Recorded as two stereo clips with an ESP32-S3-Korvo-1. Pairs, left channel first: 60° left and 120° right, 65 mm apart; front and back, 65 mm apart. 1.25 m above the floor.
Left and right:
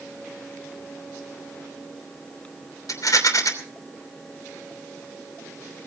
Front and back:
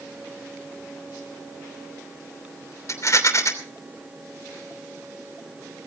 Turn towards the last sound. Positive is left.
turn(degrees=35)